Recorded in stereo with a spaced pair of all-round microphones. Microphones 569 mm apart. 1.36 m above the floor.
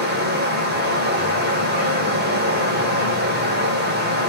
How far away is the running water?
About 1.0 m.